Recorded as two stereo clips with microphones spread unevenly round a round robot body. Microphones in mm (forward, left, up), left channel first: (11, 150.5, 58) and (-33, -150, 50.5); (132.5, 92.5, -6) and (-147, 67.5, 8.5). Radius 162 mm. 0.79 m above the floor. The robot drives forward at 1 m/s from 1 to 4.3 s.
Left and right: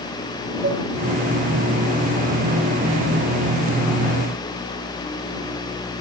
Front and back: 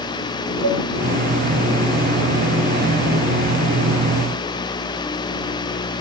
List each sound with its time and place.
0.6 s dishes clattering: 165° right, 3 m